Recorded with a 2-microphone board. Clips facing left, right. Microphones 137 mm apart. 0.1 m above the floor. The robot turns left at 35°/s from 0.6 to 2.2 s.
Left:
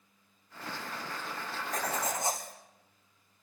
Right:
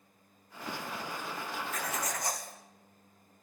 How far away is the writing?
About 2 m.